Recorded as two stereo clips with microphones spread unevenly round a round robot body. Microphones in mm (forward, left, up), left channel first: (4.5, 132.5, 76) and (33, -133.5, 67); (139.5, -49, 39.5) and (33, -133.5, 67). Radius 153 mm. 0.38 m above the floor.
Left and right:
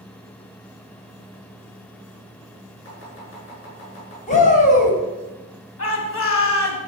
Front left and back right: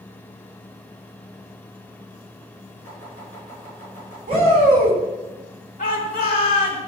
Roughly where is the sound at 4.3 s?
Behind left.